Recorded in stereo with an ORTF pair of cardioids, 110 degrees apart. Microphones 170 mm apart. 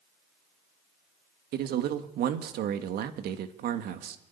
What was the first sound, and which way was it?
A man speaking, 70° right.